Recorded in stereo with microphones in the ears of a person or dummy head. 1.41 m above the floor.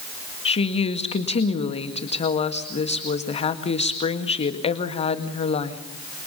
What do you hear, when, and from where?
0.5 s a woman speaking: 30° left (ahead or behind), 1.9 m